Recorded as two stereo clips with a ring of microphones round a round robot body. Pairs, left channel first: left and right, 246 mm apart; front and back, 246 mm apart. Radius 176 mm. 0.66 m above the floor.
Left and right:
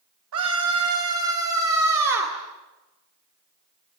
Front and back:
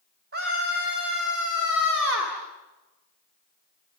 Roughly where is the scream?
Behind right.